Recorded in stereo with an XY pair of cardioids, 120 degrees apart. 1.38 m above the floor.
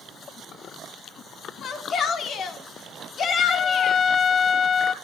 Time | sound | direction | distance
1.6 | a shout | 50° left | 2.5 m
3.5 | a trumpet | 45° left | 0.8 m